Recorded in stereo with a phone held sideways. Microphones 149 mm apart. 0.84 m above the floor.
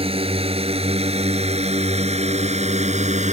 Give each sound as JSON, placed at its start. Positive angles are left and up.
{"t": 0.0, "sound": "a drone", "side_deg": -40}